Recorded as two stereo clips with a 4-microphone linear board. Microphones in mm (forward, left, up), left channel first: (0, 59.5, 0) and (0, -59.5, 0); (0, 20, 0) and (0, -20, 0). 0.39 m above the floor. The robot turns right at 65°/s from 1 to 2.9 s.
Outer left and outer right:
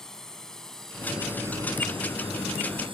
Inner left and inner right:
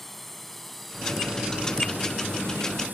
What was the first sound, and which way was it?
A drone, 5° left (ahead or behind).